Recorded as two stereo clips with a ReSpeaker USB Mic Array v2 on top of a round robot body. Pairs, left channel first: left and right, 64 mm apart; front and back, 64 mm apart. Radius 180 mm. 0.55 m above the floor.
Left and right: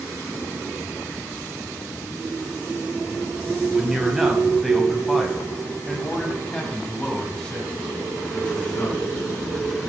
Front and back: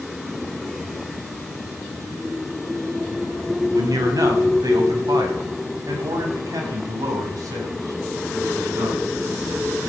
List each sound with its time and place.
3.7 s a man speaking: 170° right, 4 m; by 9.9 s 155° left, 5.5 m